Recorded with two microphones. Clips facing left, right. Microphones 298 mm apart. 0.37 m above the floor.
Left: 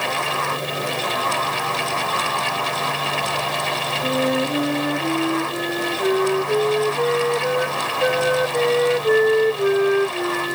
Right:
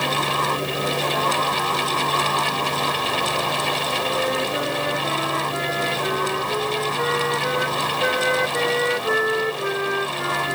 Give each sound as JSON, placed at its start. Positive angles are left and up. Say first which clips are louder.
{"t": 4.0, "sound": "a flute", "louder": "left 6 dB", "side_deg": 45}